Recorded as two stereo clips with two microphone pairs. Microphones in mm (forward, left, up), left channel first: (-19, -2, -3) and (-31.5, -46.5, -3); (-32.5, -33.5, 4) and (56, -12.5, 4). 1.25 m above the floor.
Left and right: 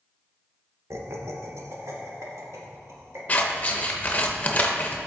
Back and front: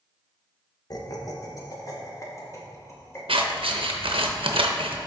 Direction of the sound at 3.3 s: 15° left.